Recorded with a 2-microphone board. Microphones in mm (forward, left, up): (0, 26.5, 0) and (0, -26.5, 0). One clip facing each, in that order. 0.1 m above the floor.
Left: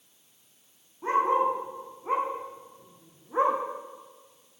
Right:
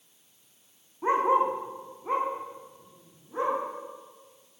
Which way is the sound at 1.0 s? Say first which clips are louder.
Right 1 dB; 25° right (ahead or behind).